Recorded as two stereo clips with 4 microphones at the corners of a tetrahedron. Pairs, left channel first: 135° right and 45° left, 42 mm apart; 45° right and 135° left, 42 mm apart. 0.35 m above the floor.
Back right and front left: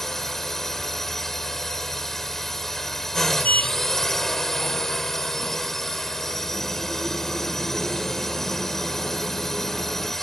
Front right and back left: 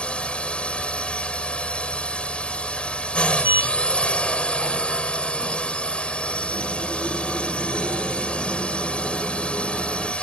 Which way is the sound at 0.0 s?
65° right.